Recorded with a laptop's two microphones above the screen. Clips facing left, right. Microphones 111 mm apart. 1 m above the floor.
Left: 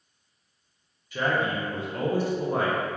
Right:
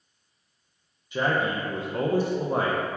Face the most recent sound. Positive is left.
turn(degrees=-20)  # may be behind; listen again after turning